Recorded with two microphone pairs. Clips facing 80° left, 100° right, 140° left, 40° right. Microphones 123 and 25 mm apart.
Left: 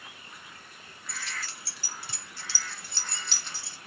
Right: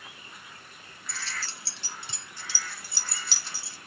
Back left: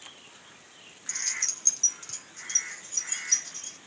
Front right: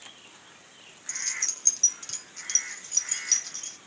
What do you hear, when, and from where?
1.1 s keys jangling: 150° right, 0.5 m; by 3.8 s 15° right, 1.2 m